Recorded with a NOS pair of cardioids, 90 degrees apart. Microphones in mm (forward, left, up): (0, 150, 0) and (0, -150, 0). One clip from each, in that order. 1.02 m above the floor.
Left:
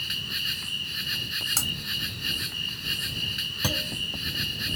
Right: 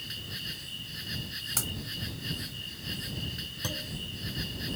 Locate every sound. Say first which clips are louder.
0.0 s an insect: left 9 dB; 60° left
1.6 s breaking glass: left 7 dB; 30° left
3.6 s a clunk: left 8 dB; 55° left